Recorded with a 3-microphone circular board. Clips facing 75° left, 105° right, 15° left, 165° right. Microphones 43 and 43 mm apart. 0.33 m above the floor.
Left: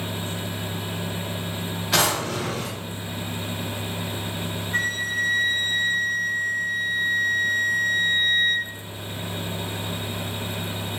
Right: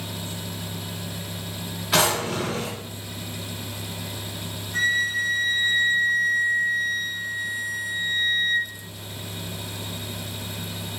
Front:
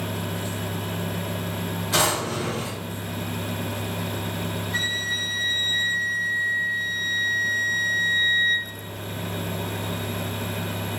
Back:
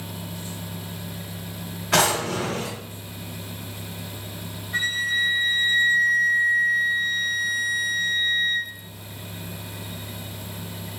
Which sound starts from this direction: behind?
A drawer, at 1.9 s.